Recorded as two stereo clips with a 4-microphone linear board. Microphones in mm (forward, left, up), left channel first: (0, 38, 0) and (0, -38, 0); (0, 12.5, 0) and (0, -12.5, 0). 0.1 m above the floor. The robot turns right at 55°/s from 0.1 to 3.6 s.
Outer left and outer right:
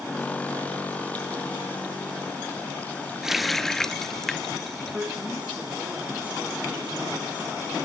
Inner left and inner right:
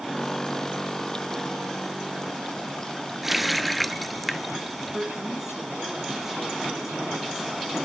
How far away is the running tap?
About 0.9 m.